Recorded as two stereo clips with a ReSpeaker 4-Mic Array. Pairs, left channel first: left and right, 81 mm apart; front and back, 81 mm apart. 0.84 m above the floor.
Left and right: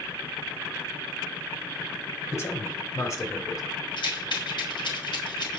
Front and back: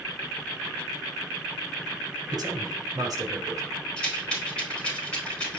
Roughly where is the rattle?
Left.